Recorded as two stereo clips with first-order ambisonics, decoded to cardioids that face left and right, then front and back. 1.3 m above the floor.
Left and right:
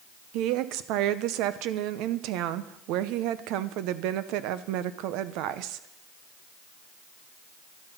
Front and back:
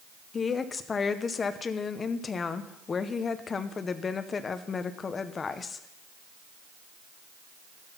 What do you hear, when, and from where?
0.3 s a woman speaking: 70° right, 0.7 m